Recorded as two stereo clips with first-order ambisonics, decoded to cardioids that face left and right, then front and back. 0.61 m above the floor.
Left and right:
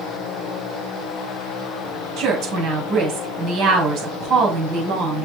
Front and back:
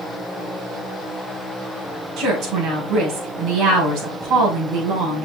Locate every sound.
2.2 s a woman speaking: 140° right, 4.5 m